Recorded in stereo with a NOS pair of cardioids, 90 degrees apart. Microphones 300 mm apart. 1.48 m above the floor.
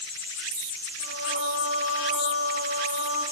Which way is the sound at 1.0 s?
45° right.